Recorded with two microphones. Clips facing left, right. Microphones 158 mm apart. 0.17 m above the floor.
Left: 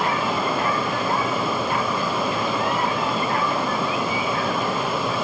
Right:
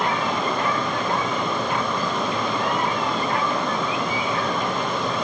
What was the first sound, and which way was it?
Only background noise.